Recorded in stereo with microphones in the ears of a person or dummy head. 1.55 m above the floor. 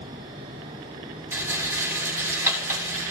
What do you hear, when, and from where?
1.3 s a rattle: 15° right (ahead or behind), 3 m